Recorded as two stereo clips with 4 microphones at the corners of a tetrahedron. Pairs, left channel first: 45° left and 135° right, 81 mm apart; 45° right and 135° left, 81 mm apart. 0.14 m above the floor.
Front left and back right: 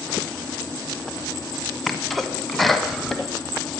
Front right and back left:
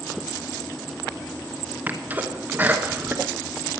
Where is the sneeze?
130° left, 1.2 m.